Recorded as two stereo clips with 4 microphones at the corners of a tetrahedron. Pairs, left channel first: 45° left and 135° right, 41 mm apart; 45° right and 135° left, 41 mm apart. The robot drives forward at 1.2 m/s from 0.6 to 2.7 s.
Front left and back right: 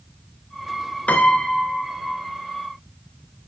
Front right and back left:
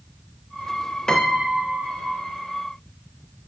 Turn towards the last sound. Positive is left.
turn(degrees=175)